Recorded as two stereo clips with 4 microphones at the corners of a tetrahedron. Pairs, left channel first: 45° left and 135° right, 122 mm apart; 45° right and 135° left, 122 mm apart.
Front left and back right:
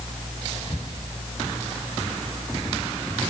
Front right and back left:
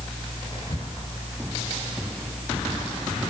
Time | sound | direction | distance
0.5 | whispering | 10° right | 10 m